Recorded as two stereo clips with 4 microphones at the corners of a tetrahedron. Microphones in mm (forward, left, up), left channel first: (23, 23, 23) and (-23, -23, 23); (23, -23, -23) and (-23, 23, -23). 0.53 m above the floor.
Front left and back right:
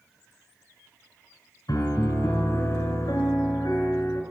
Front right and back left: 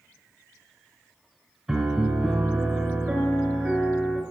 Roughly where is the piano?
Ahead left.